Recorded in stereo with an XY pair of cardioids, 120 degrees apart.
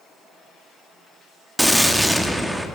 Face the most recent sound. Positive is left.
turn(degrees=-5)